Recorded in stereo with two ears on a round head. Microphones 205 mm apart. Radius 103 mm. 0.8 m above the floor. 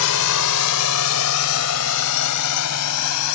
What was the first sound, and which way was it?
A drone, 75° left (ahead or behind).